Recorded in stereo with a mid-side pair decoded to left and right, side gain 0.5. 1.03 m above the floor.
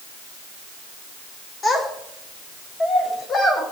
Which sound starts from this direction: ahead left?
A child speaking, at 1.6 s.